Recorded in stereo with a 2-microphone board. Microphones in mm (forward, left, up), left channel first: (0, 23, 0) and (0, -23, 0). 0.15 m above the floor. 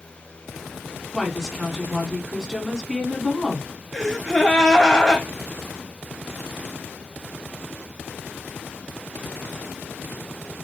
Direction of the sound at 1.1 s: 10° left (ahead or behind).